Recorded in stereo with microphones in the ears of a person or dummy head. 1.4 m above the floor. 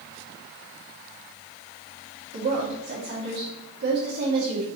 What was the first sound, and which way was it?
A woman speaking, 60° right (ahead or behind).